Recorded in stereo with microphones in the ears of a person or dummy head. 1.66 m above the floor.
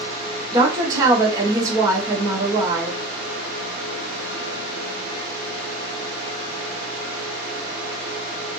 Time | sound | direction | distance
0.5 | a woman speaking | 20° right (ahead or behind) | 1.0 m